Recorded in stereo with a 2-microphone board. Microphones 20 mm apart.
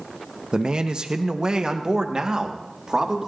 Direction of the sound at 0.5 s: 45° right (ahead or behind).